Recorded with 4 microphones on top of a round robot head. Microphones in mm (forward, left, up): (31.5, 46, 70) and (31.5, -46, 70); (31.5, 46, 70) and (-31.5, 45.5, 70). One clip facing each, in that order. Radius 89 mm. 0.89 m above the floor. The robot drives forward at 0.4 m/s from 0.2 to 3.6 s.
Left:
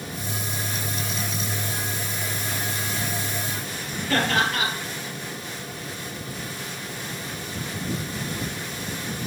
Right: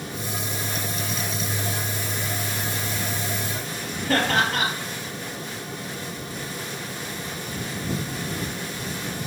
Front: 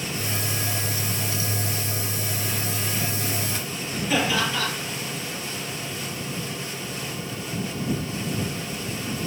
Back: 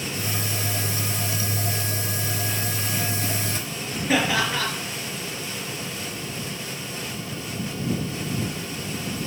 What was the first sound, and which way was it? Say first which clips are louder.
Laughter: right 1 dB, back 2 dB; 140° right.